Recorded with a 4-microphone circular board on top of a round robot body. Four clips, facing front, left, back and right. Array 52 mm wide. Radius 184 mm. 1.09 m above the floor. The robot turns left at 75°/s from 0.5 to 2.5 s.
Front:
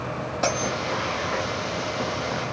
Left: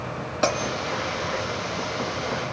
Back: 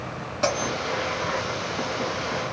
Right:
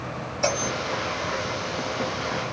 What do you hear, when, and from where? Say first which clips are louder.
0.4 s a bell: left 2 dB, back 1 dB; 90° left, 3 m; by 0.7 s 75° left, 3 m